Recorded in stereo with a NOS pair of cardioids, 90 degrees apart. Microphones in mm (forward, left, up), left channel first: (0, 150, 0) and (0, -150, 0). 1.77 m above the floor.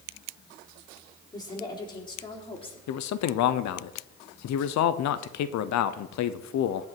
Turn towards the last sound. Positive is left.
turn(degrees=70)